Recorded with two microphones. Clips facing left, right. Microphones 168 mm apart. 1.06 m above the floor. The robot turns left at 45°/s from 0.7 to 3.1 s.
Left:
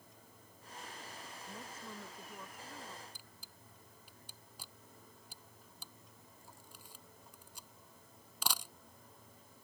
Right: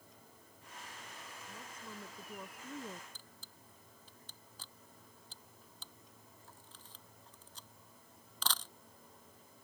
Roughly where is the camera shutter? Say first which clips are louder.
Even; centre.